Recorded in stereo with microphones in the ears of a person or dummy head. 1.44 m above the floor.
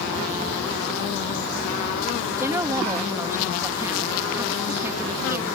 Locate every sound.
2.3 s a woman speaking: 10° right (ahead or behind)